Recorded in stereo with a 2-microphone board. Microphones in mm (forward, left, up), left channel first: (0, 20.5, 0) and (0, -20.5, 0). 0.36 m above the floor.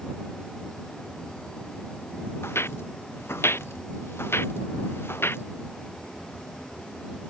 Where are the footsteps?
85° left; by 5.4 s 70° left (ahead or behind).